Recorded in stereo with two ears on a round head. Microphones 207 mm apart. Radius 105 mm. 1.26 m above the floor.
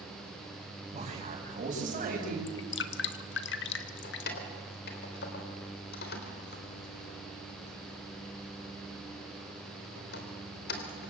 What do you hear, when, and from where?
0.9 s a man speaking: 30° right (ahead or behind), 8.5 m; by 2.4 s 40° right (ahead or behind), 8 m
2.5 s dripping: 55° left (ahead or behind), 1.5 m
4.0 s keys jangling: 45° left (ahead or behind), 3.5 m